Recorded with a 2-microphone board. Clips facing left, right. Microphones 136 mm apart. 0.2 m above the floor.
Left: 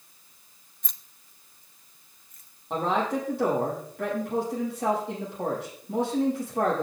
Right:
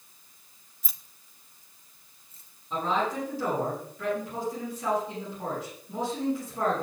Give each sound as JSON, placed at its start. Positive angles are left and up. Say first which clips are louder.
{"t": 0.8, "sound": "keys jangling", "louder": "right 1 dB", "side_deg": -5, "distance_m": 0.7}
{"t": 2.7, "sound": "a man speaking", "louder": "left 2 dB", "side_deg": 80, "distance_m": 7.0}